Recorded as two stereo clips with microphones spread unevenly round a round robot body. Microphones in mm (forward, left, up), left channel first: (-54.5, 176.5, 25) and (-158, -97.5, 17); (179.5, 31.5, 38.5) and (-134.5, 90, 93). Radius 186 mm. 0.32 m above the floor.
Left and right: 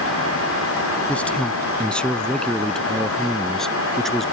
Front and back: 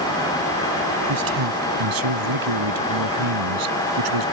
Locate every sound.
1.1 s a man speaking: 155° left; by 4.2 s 160° left